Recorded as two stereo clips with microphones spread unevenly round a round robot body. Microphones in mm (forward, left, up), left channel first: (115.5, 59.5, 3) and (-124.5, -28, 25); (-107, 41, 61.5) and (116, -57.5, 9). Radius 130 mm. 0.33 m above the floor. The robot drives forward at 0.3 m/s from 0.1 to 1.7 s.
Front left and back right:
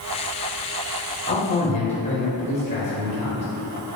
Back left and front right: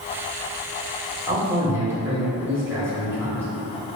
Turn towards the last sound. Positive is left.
turn(degrees=20)